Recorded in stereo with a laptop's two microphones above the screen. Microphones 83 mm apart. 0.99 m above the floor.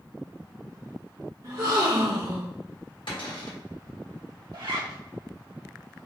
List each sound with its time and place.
1.4 s a gasp: 50° right (ahead or behind), 1.3 m
3.1 s a cupboard door: 75° left (ahead or behind), 1.4 m
4.5 s a zipper: 75° right (ahead or behind), 1.8 m